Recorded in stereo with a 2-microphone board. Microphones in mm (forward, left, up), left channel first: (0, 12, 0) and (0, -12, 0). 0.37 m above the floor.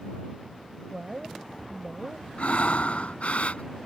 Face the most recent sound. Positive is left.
turn(degrees=65)  # may be behind; listen again after turning